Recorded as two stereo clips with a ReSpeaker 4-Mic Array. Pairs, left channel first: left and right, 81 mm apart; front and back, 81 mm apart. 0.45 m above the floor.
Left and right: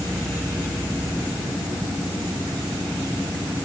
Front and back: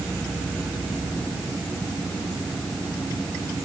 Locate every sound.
Only background noise.